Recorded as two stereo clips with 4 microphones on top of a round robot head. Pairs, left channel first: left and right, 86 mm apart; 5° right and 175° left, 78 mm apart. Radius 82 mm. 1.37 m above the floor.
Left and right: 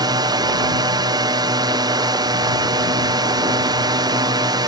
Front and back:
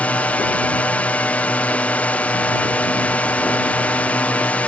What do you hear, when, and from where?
0.0 s a drone: 75° right